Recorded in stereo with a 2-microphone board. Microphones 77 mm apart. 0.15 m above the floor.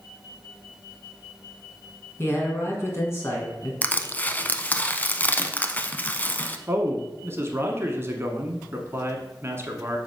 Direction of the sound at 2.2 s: 35° left (ahead or behind).